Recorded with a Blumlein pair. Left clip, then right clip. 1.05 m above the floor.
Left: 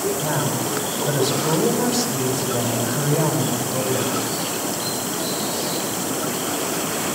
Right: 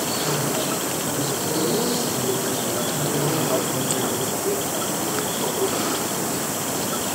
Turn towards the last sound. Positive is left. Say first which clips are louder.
# even
turn(degrees=25)